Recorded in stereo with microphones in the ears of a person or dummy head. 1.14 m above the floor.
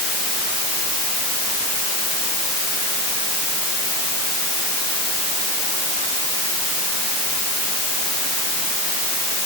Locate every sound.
Only background noise.